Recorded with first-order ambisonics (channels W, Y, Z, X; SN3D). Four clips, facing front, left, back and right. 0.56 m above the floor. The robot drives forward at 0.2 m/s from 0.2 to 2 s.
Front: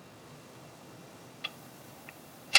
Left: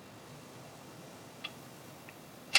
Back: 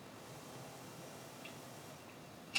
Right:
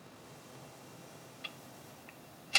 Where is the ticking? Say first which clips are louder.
Left 1 dB, front 8 dB; 10° left, 0.6 m.